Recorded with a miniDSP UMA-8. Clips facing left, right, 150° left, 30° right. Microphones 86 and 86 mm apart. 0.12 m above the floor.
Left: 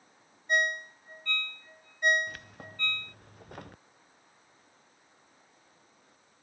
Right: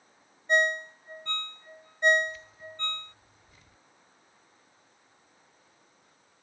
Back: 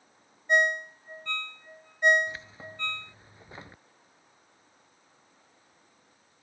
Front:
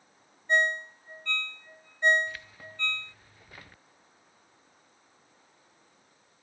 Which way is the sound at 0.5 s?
140° right.